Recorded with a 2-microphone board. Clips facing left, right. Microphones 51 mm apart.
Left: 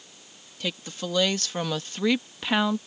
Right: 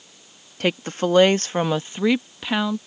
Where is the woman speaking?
55° right (ahead or behind); by 2.8 s 10° left (ahead or behind).